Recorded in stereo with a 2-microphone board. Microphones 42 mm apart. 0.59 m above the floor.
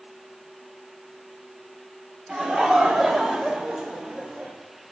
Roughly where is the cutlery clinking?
I don't hear cutlery clinking.